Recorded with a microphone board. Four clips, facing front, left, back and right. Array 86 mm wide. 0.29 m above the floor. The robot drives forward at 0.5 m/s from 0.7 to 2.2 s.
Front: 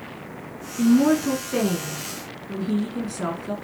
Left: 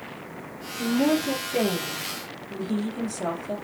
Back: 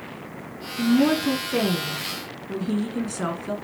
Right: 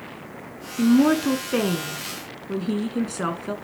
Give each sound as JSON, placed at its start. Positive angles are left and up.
{"t": 0.8, "sound": "a woman speaking", "azimuth_deg": -85, "distance_m": 3.0}